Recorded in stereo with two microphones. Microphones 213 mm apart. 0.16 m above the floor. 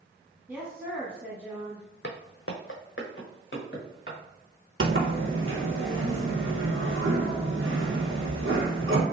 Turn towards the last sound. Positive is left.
turn(degrees=-80)